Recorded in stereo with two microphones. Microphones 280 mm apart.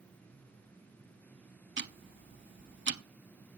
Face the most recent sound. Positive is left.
turn(degrees=-40)  # may be behind; listen again after turning